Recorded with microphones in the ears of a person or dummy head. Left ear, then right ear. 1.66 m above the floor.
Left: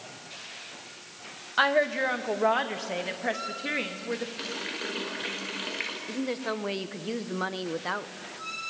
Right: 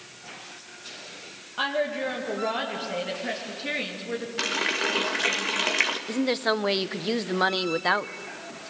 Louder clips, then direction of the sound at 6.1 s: Right 7 dB; 25° right (ahead or behind).